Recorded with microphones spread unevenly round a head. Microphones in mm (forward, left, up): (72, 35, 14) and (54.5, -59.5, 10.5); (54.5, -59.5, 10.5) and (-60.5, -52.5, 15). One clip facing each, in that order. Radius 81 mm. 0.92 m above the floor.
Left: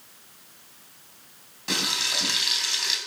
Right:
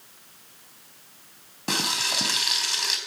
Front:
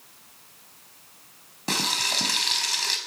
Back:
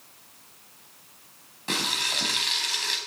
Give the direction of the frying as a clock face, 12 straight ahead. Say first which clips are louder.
Right 2 dB, front 2 dB; 2 o'clock.